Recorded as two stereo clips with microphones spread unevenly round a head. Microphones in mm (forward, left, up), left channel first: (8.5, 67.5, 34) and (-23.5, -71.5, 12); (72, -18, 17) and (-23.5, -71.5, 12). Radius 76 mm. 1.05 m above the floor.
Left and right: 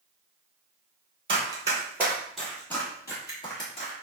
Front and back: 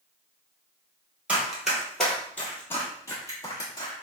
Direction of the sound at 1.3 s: 75° right.